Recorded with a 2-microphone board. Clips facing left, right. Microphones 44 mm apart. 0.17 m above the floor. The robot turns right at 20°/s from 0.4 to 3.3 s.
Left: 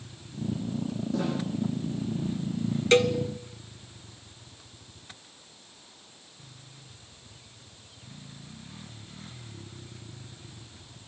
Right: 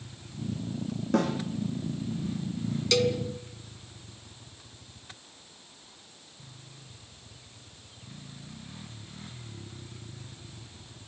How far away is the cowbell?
About 1.3 m.